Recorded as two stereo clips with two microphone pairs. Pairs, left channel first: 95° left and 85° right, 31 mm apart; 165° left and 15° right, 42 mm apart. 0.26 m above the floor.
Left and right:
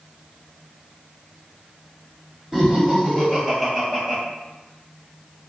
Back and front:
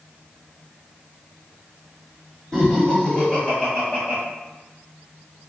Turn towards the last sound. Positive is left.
turn(degrees=170)